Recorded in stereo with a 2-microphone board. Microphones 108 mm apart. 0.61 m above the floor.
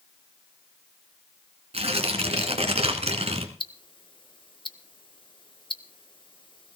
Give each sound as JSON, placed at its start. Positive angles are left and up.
{"t": 1.7, "sound": "tearing paper", "side_deg": -70, "distance_m": 1.9}
{"t": 3.6, "sound": "ticking", "side_deg": 50, "distance_m": 0.8}